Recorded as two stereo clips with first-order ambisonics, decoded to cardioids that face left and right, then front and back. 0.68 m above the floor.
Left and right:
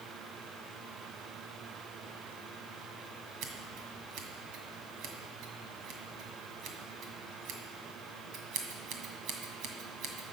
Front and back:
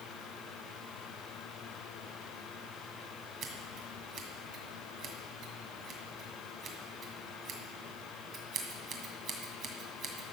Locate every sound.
3.4 s scissors: 125° right, 1.9 m